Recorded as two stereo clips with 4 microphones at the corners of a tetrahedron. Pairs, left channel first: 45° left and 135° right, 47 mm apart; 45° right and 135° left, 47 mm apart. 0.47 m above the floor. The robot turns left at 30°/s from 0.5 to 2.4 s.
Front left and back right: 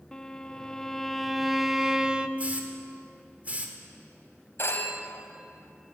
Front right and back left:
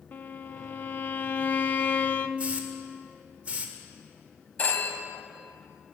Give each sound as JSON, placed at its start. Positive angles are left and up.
{"t": 0.1, "sound": "a violin", "azimuth_deg": -25, "distance_m": 0.5}
{"t": 2.4, "sound": "a hiss", "azimuth_deg": -175, "distance_m": 1.4}
{"t": 4.6, "sound": "a phone ringing", "azimuth_deg": 10, "distance_m": 1.8}